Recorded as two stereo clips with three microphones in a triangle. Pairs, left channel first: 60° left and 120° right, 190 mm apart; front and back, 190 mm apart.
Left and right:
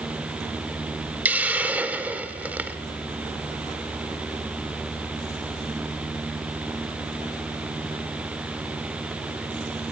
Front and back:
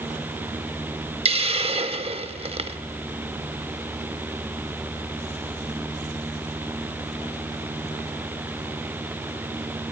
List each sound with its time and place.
1.2 s a hiss: 165° left, 0.8 m